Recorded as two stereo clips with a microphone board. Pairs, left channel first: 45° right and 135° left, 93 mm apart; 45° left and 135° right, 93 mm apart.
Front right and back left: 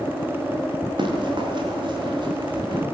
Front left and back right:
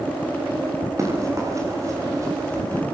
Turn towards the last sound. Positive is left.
turn(degrees=170)